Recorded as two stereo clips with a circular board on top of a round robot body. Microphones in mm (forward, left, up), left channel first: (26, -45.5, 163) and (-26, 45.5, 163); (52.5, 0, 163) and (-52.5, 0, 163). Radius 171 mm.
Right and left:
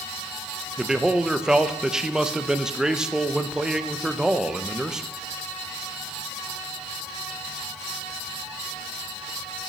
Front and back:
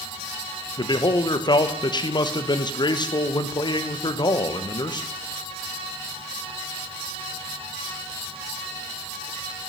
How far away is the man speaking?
About 0.8 m.